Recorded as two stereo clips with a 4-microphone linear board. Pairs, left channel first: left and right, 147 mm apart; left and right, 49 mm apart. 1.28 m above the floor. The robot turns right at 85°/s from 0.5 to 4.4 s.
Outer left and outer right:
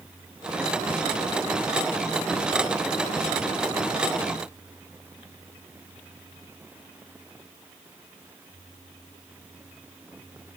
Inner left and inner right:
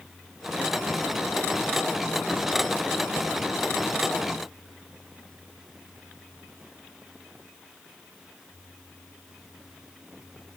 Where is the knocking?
No knocking in this recording.